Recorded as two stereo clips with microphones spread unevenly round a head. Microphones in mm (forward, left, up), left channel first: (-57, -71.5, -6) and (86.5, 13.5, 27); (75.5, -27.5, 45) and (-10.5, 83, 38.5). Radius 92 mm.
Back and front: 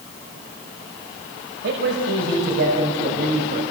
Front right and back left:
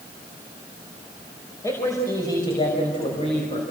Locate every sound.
1.6 s a man speaking: 15° left, 5 m; by 3.6 s 5° right, 5.5 m